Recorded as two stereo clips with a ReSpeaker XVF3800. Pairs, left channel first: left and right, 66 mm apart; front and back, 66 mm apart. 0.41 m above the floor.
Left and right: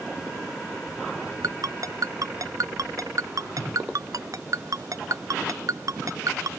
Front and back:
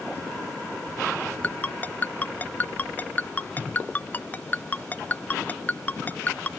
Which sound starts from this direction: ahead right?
A ringtone, at 1.4 s.